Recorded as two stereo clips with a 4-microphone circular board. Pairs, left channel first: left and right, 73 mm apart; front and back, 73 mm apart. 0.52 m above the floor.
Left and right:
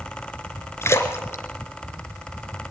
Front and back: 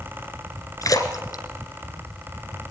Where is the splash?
40° left, 2.0 m.